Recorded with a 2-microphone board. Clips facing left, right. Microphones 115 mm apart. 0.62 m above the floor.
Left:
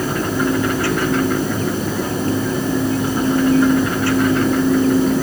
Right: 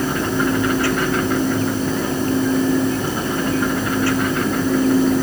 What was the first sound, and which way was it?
Only background noise.